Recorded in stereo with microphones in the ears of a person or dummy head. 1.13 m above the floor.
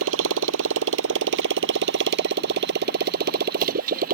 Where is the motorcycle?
75° right (ahead or behind); by 4.2 s 45° right (ahead or behind).